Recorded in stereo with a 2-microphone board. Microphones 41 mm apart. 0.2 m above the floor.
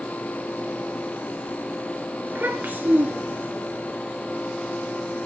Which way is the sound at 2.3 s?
55° right (ahead or behind).